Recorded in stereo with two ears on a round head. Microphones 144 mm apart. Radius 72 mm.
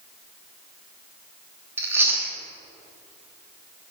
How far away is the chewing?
About 1.0 m.